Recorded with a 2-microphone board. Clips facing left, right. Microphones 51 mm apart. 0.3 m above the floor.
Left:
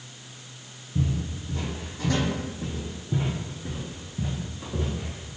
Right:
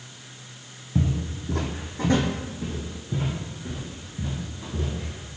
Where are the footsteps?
75° right (ahead or behind), 0.9 m; by 5.3 s 30° left (ahead or behind), 2.5 m.